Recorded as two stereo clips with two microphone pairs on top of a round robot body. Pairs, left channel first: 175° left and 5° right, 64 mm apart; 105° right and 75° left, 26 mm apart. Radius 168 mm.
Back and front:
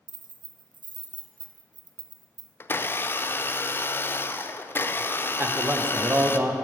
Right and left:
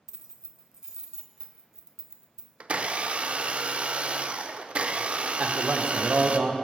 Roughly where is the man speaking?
Ahead left.